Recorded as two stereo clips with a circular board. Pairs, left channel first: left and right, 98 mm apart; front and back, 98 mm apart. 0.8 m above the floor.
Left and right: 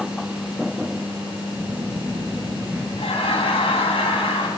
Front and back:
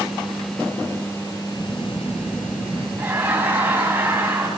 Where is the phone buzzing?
15° right, 7 m.